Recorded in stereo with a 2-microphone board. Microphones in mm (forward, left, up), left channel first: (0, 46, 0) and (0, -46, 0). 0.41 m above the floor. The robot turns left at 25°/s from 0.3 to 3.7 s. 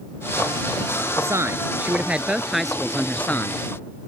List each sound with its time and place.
1.2 s a woman speaking: 145° right; by 3.6 s 155° left